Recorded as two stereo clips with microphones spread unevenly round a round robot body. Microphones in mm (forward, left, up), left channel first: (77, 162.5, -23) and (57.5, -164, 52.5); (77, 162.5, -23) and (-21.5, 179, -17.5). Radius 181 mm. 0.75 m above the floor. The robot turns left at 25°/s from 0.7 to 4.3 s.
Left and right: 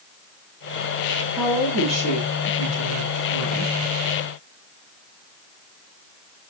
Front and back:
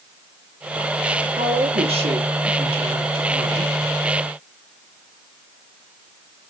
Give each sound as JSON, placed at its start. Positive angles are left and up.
{"t": 1.4, "sound": "a woman speaking", "azimuth_deg": 175, "distance_m": 5.5}